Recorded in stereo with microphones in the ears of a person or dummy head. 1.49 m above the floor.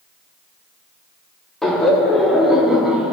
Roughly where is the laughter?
Centre.